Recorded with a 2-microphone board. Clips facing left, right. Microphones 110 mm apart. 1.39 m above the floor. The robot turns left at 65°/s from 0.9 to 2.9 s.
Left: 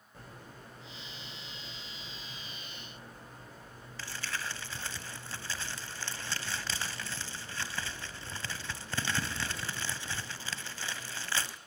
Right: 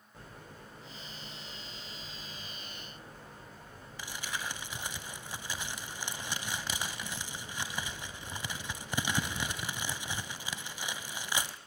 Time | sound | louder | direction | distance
4.0 | crumpling | even | 15° right (ahead or behind) | 1.2 m